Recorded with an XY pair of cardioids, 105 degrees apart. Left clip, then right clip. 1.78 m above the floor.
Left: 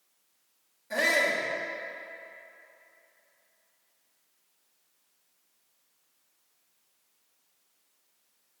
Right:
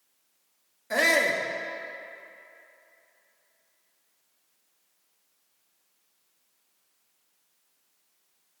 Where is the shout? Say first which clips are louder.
Right 3 dB; 55° right, 1.4 m.